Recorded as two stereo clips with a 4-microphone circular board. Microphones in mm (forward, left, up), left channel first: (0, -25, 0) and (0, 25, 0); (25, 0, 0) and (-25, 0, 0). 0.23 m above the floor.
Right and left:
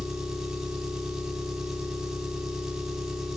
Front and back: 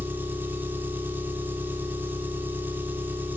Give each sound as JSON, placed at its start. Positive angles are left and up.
{"t": 0.0, "sound": "an engine running", "azimuth_deg": 170, "distance_m": 0.7}